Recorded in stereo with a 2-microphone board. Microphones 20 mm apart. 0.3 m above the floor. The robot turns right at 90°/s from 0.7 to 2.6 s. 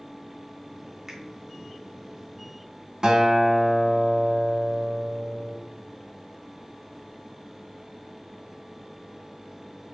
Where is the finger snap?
25° right (ahead or behind), 1.2 m; by 1.2 s 20° right (ahead or behind), 1.2 m.